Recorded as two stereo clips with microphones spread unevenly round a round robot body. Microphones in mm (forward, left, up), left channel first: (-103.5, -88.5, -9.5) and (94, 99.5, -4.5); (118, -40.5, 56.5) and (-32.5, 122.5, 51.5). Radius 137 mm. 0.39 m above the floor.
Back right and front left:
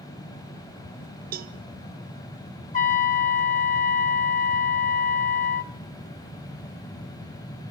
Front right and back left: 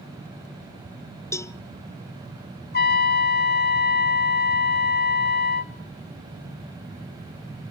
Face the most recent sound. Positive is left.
turn(degrees=-80)